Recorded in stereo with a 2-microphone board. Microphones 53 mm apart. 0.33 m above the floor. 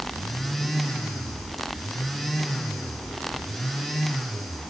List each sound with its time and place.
Only background noise.